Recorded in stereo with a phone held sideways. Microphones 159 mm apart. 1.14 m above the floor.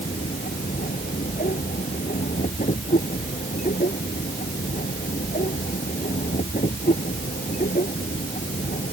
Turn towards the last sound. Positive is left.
turn(degrees=55)  # may be behind; listen again after turning